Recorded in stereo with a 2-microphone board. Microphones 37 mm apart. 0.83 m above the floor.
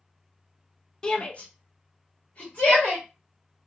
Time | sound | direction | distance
1.0 | a shout | 20° left (ahead or behind) | 0.5 m